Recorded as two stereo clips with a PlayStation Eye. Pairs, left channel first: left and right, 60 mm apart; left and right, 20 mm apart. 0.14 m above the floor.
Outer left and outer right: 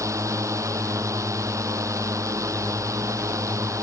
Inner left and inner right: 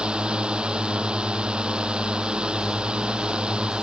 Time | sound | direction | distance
0.0 | a drone | 60° right (ahead or behind) | ?